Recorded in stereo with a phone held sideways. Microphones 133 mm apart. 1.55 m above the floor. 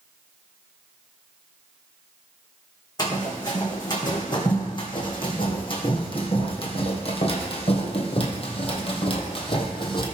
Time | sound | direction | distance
3.0 | running footsteps | 30° left (ahead or behind) | 4 m